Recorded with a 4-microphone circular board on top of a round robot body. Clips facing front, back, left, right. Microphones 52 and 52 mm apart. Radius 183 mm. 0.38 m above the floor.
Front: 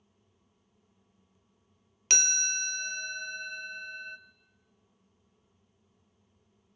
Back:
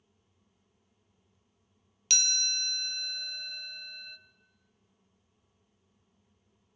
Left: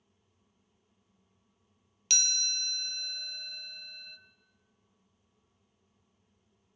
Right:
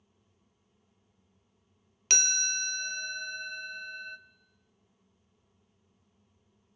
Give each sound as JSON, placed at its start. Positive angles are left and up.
{"t": 2.1, "sound": "a chime", "azimuth_deg": -45, "distance_m": 0.9}